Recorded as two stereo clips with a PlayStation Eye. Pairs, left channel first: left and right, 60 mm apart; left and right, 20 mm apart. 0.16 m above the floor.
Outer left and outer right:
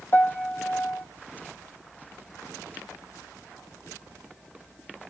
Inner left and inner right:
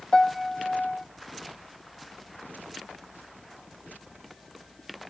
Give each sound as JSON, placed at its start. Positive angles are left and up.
{"t": 0.1, "sound": "a piano", "side_deg": 40, "distance_m": 1.1}